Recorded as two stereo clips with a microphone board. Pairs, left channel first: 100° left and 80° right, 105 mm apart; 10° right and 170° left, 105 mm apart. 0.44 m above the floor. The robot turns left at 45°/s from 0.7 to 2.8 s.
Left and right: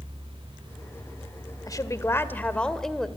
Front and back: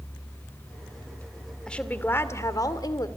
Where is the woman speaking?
70° left, 1.8 m; by 3.1 s 15° left, 1.8 m.